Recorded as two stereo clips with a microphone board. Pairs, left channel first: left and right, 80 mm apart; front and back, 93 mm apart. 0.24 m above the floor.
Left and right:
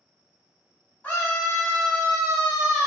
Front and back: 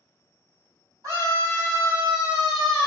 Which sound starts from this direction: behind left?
A scream, at 1.0 s.